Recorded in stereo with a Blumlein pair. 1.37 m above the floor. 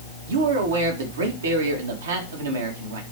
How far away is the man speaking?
About 1.8 m.